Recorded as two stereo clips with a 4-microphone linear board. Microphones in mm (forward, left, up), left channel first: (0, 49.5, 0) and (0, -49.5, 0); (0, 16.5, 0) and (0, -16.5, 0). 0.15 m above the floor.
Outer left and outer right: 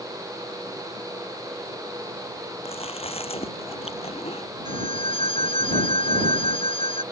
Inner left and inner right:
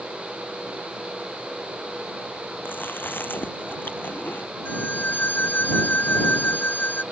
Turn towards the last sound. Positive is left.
turn(degrees=65)  # may be behind; listen again after turning